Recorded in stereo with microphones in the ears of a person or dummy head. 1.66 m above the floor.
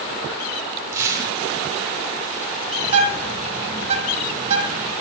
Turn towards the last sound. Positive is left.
turn(degrees=-35)  # may be behind; listen again after turning